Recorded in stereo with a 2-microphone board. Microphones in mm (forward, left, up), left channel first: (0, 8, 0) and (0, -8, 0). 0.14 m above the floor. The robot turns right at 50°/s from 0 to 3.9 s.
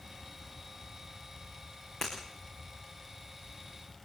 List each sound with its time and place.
2.0 s breaking glass: 30° left (ahead or behind), 9 m; by 2.1 s 25° left (ahead or behind), 9 m